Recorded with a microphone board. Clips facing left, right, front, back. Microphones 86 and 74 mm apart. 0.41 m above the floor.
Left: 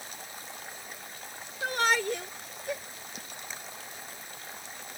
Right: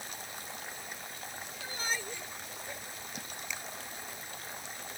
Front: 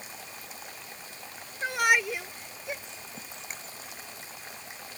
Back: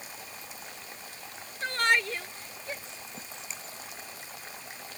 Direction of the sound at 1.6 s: 80° left.